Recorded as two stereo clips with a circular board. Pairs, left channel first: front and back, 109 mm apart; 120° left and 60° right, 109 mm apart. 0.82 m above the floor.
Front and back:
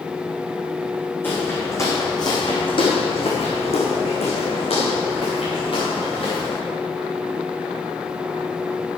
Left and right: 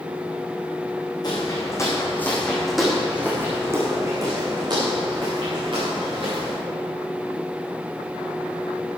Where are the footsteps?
70° left, 3.5 m; by 6.6 s 30° right, 7 m.